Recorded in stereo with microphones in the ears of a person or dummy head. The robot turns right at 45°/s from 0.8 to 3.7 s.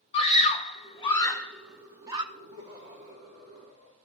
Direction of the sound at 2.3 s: 165° right.